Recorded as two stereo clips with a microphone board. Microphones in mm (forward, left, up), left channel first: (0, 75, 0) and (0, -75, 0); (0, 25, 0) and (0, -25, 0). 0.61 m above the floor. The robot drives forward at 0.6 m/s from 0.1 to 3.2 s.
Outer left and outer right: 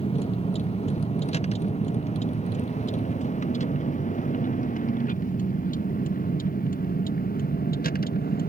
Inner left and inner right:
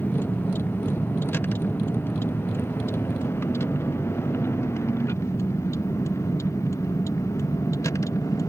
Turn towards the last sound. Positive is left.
turn(degrees=80)